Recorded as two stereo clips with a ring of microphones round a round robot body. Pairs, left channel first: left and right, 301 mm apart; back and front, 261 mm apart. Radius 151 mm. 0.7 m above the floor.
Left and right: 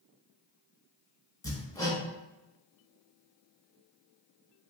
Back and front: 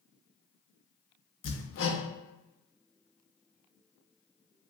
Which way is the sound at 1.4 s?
165° left.